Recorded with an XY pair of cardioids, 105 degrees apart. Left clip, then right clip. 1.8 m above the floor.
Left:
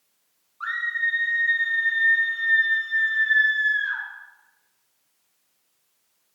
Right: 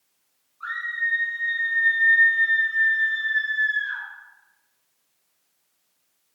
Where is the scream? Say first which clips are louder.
Left 2 dB; 55° left, 3 m; by 4.0 s 30° left, 4.5 m.